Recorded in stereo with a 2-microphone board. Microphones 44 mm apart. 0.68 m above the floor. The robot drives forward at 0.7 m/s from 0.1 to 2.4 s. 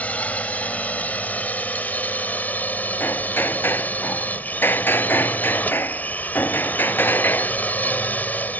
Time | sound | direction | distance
0.0 | a drone | 35° left (ahead or behind) | ?
3.0 | hammering | 60° left (ahead or behind) | ?